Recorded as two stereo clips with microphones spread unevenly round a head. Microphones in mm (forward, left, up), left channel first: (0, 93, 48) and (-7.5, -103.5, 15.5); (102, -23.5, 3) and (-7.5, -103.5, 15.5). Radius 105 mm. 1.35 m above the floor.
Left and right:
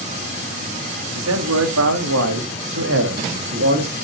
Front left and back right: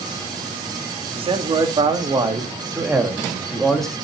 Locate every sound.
1.1 s a man speaking: 100° right, 2.5 m; by 3.9 s 50° right, 2.5 m